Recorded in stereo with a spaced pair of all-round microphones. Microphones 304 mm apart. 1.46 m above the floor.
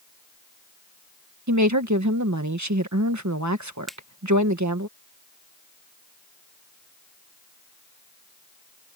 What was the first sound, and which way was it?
A woman speaking, 65° right (ahead or behind).